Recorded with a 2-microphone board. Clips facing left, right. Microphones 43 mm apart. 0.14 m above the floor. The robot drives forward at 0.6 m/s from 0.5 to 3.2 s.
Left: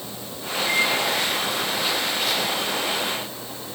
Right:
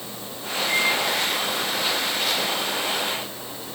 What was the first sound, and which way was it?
A microwave, 80° left.